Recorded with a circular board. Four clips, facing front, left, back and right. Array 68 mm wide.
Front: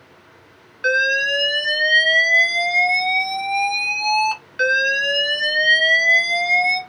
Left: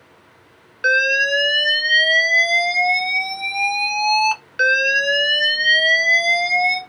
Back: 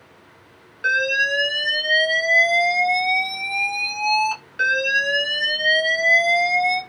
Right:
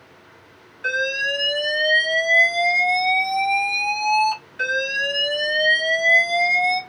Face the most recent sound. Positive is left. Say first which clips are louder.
# left 6 dB, front 2 dB
turn(degrees=75)